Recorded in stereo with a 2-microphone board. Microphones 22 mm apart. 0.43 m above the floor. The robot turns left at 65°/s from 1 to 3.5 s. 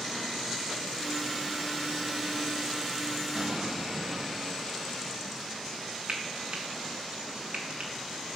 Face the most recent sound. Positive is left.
turn(degrees=-55)  # may be behind; listen again after turning